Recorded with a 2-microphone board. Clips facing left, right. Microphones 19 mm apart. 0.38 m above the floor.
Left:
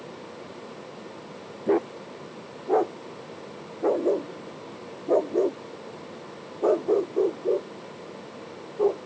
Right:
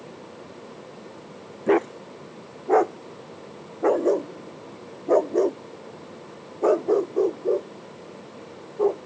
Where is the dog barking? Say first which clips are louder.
Right 3 dB; 65° right (ahead or behind); by 9.0 s 20° right (ahead or behind).